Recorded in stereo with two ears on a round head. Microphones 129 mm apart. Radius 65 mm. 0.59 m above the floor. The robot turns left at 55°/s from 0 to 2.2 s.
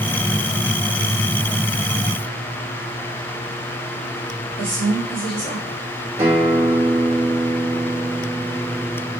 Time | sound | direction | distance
4.6 | a woman speaking | 55° right (ahead or behind) | 1.7 m
6.2 | a guitar | 45° right (ahead or behind) | 1.2 m